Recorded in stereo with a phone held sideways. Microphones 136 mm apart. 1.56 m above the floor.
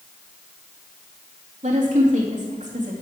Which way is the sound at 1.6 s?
70° right (ahead or behind).